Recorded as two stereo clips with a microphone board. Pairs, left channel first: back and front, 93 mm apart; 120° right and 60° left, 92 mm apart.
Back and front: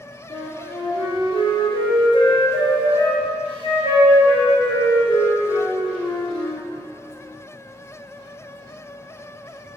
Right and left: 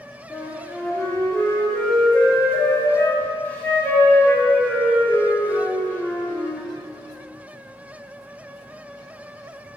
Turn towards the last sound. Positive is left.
turn(degrees=170)